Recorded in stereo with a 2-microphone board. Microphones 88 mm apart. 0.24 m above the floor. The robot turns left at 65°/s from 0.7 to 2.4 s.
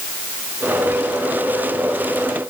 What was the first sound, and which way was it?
Only background noise.